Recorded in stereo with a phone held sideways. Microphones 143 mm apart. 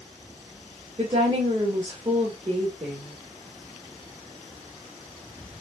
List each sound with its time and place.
1.0 s a woman speaking: 45° right (ahead or behind), 1.4 m